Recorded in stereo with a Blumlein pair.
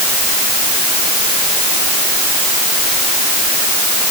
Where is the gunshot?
No gunshot in this recording.